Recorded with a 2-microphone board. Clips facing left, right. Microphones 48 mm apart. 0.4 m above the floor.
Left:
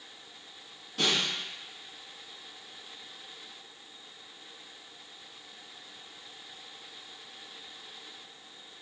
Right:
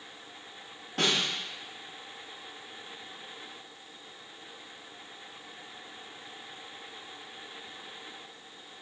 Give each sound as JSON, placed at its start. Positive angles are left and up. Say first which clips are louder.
{"t": 1.0, "sound": "a snare drum", "louder": "right 1 dB", "side_deg": -60, "distance_m": 1.5}